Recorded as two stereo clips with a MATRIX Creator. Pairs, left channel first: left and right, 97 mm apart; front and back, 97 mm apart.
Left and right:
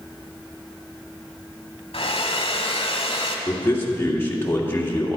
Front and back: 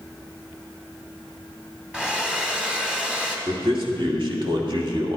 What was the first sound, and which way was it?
A hair dryer, 100° left.